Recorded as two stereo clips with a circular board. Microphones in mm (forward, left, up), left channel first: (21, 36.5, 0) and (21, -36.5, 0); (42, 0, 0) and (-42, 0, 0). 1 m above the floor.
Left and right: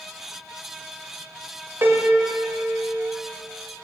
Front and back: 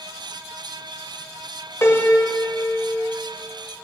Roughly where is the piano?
Ahead right.